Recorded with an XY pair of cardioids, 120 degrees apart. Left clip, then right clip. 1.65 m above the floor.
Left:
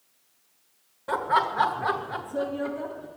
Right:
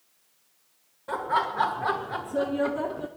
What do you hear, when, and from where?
1.1 s laughter: 25° left, 1.4 m; by 3.1 s 60° right, 0.8 m